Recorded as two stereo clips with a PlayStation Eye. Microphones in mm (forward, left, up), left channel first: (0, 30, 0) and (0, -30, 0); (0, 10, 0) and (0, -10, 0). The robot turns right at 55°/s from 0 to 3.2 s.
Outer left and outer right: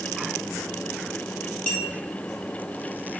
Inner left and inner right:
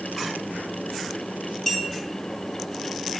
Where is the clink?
25° left (ahead or behind), 1.1 m; by 1.9 s 10° left (ahead or behind), 1.1 m.